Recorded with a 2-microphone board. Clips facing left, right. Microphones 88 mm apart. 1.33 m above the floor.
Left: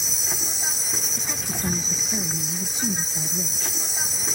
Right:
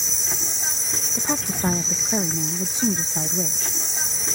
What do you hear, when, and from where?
0.0 s an insect: 5° left (ahead or behind)
1.1 s a woman speaking: 55° right (ahead or behind)